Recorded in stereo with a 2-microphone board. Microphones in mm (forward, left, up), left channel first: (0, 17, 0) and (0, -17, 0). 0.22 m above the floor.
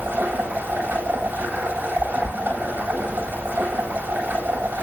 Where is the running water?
85° right, 8.5 m.